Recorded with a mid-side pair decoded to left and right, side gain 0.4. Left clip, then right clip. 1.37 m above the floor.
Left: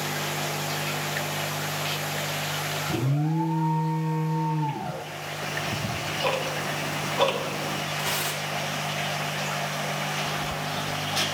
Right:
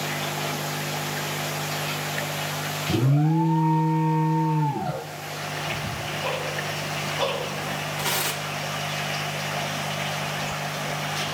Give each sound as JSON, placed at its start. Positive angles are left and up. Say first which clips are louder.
{"t": 2.9, "sound": "an alarm", "louder": "right 4 dB", "azimuth_deg": -35, "distance_m": 0.8}
{"t": 5.4, "sound": "ticking", "louder": "even", "azimuth_deg": 50, "distance_m": 1.7}
{"t": 8.0, "sound": "tearing paper", "louder": "right 4 dB", "azimuth_deg": -40, "distance_m": 2.5}